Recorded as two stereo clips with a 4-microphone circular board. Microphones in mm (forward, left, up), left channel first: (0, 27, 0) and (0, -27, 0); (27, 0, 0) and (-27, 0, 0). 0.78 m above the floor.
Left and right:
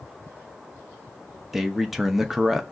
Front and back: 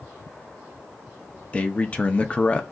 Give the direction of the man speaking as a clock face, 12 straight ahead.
12 o'clock.